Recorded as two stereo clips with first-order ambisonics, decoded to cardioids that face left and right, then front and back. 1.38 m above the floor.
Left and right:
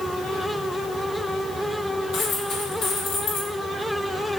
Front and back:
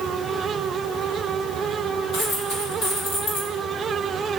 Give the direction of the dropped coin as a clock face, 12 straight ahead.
10 o'clock.